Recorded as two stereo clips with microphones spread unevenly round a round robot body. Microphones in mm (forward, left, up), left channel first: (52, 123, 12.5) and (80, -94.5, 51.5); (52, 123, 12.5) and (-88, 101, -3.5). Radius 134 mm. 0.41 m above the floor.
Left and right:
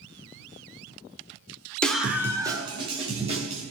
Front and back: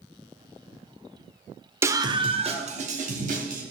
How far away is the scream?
About 1.2 m.